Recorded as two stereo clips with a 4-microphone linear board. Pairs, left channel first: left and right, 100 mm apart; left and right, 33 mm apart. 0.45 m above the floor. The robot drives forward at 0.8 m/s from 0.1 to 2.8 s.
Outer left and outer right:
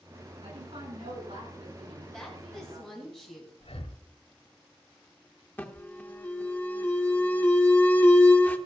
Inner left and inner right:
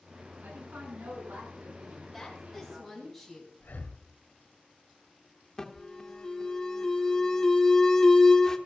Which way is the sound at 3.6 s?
75° left (ahead or behind).